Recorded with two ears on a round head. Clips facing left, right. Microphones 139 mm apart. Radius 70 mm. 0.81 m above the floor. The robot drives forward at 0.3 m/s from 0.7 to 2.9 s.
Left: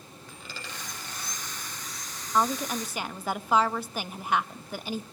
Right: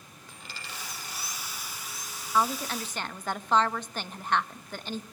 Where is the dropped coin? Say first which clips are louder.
Left 2 dB; 80° left, 9 m; by 1.4 s 75° left (ahead or behind), 9 m.